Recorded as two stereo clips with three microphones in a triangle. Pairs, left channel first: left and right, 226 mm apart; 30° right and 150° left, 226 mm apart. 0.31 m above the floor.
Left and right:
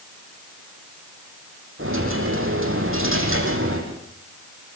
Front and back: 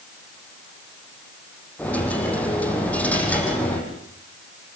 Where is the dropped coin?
115° right, 6.5 m.